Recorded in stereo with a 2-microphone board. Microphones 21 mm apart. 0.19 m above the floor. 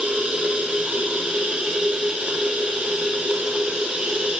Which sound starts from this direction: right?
Running water, at 0.0 s.